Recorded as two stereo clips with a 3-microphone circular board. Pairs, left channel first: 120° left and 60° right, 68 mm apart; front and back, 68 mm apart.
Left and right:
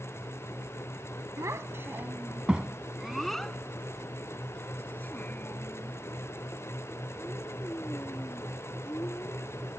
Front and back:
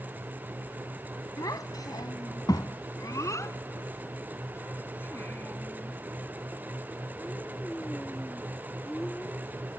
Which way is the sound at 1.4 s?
20° right.